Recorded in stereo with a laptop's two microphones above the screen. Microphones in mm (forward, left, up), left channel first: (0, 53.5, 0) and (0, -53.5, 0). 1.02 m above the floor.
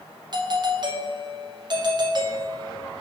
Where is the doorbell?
45° right (ahead or behind), 1.3 m.